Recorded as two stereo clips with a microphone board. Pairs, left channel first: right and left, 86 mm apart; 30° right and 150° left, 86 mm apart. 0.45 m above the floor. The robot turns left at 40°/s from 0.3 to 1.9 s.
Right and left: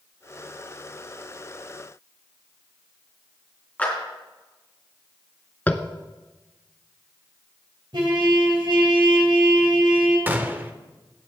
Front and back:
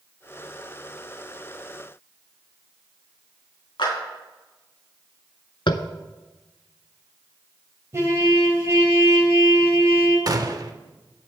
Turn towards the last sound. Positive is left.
turn(degrees=150)